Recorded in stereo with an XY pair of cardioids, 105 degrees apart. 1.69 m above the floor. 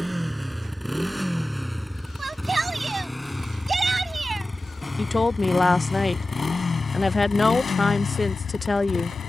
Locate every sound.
0.0 s a motorcycle: 5° right; by 9.3 s 55° left
2.2 s a shout: 20° right
5.0 s a woman speaking: 20° left